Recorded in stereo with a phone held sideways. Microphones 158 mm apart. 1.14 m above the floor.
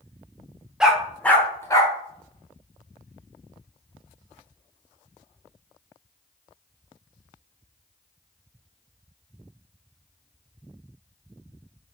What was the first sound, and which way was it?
A dog barking, 5° right (ahead or behind).